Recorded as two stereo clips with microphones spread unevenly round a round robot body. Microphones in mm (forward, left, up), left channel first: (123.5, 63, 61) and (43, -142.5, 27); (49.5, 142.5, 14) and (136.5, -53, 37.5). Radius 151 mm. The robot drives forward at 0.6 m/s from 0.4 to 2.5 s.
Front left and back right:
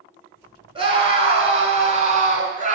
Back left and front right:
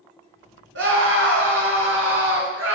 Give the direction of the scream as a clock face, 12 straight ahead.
2 o'clock.